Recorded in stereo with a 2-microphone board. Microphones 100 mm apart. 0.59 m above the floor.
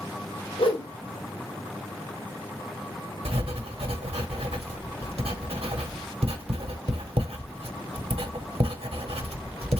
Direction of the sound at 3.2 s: 75° right (ahead or behind).